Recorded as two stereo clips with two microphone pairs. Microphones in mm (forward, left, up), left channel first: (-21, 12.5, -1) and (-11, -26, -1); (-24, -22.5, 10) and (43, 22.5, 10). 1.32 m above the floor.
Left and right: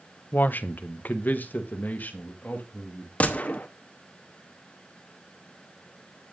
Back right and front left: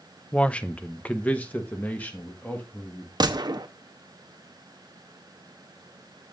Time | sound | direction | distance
0.3 | a man speaking | 135° left | 0.5 m
3.2 | a gunshot | 60° left | 0.8 m